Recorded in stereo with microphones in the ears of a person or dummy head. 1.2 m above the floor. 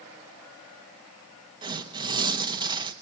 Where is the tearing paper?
20° right (ahead or behind), 1.1 m.